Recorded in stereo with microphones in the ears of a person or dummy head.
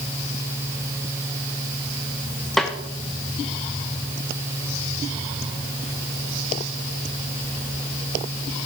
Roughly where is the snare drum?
Centre.